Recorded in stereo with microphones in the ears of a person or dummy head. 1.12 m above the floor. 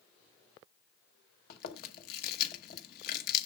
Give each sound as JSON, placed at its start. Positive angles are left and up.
{"t": 1.5, "sound": "chewing", "side_deg": 55, "distance_m": 1.1}